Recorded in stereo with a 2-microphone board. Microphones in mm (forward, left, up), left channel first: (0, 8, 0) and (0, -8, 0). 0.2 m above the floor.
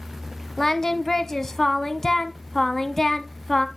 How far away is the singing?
About 0.9 m.